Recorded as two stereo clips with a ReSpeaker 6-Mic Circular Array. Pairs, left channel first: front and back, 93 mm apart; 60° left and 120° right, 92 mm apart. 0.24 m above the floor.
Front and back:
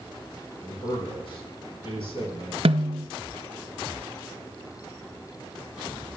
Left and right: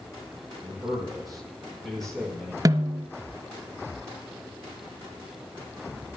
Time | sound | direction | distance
0.6 | a man speaking | 35° right | 5 m
2.6 | a snare drum | 170° right | 0.6 m